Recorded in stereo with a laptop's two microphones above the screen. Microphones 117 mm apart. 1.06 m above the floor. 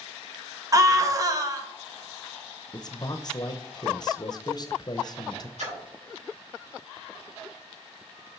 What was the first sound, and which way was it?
A scream, 30° right (ahead or behind).